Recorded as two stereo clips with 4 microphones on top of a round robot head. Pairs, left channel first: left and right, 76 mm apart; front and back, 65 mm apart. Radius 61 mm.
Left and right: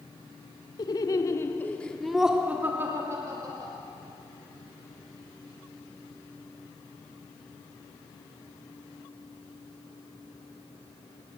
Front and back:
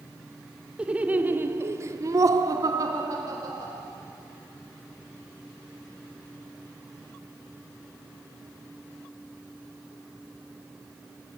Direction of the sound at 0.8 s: 110° left.